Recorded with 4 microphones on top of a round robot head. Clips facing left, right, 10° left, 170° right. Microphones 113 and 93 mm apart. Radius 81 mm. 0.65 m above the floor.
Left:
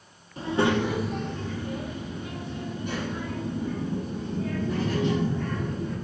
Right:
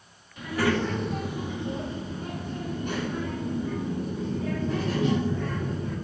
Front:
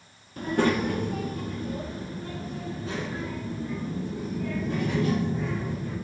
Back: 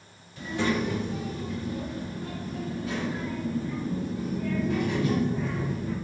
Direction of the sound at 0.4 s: 40° left.